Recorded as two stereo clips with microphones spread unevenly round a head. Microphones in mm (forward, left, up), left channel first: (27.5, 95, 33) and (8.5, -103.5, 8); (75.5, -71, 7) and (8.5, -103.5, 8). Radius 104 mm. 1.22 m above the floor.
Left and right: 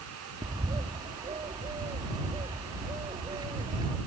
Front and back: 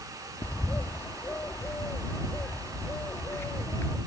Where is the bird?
25° right.